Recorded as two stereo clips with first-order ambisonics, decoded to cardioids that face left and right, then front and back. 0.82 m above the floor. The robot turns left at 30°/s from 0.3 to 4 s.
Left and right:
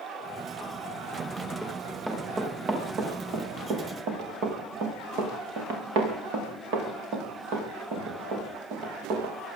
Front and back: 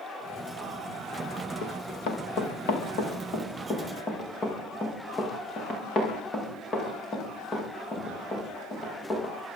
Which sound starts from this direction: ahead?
Running footsteps, at 1.6 s.